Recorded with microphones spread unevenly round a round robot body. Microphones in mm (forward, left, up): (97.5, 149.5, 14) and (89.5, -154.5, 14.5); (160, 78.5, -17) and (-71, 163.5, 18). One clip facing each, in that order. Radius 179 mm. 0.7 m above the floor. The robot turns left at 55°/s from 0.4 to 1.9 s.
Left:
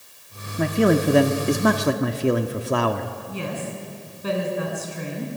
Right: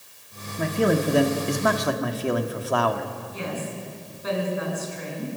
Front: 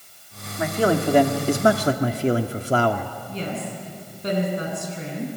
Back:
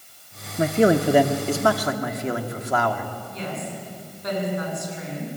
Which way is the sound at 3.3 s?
35° left.